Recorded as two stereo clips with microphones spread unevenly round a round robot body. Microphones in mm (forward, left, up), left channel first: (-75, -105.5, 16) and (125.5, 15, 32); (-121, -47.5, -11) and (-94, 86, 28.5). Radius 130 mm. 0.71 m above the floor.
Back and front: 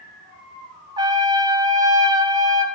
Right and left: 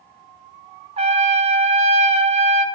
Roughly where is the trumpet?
Left.